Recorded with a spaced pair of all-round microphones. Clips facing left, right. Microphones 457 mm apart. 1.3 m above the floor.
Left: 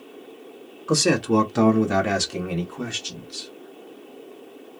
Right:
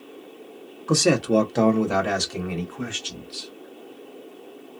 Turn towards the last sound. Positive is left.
turn(degrees=65)  # may be behind; listen again after turning